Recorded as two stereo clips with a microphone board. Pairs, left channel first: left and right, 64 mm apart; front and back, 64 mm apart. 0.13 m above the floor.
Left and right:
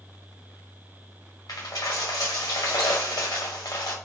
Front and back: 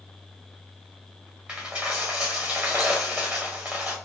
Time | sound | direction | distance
1.5 | a dropped coin | 110° left | 1.8 m